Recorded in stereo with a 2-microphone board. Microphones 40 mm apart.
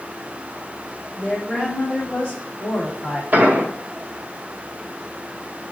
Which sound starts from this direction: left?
A woman speaking, at 1.2 s.